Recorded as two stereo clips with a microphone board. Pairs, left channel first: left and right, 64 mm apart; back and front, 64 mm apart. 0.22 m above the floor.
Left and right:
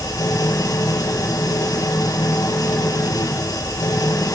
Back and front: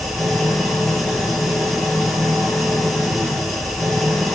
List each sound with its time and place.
0.0 s an engine running: 90° left, 6 m